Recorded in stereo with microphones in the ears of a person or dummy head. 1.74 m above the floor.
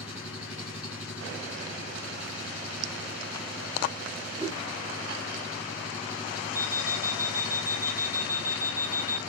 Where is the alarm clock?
30° right (ahead or behind), 3 m.